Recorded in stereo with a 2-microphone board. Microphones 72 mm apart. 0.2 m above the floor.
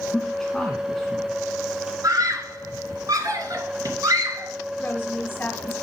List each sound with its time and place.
0.1 s a man speaking: 5° left (ahead or behind), 2.0 m
2.0 s a scream: 55° right (ahead or behind), 2.5 m
4.8 s a woman speaking: 25° left (ahead or behind), 1.7 m